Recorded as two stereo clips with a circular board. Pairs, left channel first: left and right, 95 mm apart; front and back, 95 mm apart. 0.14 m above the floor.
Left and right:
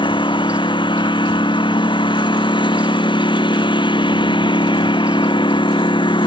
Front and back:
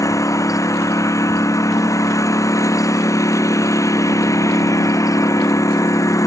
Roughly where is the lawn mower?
Ahead left.